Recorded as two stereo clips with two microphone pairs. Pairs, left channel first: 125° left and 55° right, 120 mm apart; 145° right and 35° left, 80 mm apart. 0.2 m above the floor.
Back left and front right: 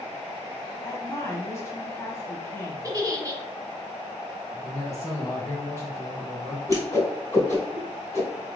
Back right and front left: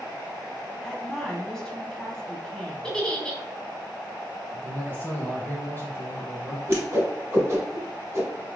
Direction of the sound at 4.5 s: 175° left.